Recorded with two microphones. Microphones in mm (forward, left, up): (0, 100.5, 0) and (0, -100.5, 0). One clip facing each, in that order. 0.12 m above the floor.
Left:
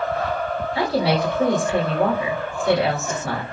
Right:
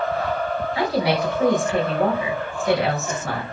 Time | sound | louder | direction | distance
0.8 | a woman speaking | left 1 dB | 30° left (ahead or behind) | 1.9 m